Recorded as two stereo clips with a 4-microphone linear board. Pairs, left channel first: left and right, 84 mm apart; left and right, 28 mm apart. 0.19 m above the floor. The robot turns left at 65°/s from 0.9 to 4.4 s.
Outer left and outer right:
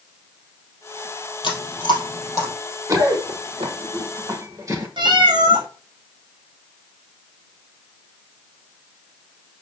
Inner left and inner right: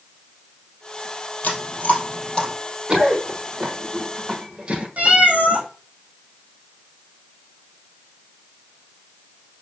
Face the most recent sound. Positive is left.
turn(degrees=-65)  # may be behind; listen again after turning